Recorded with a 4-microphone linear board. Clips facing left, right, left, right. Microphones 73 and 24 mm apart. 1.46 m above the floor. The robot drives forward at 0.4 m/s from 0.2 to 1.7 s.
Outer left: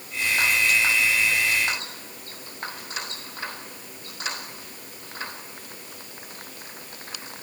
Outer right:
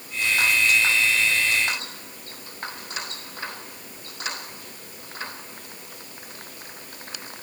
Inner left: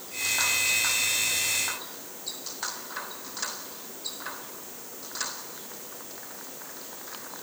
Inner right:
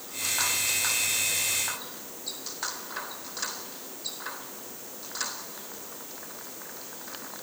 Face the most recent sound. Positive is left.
No sound to turn to.